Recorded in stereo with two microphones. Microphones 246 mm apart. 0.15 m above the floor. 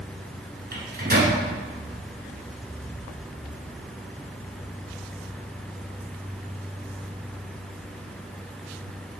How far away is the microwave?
About 1.5 m.